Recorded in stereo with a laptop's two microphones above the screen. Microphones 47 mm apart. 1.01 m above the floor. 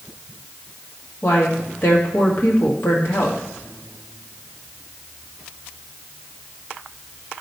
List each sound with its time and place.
1.2 s a woman speaking: 60° left (ahead or behind), 1.4 m